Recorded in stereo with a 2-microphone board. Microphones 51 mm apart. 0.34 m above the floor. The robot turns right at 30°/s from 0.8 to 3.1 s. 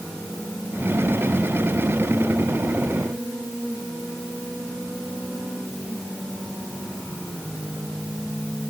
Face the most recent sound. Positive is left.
No sound to turn to.